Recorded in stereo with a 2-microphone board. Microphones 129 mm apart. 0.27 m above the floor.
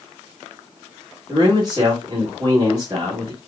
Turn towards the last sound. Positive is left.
turn(degrees=-35)  # may be behind; listen again after turning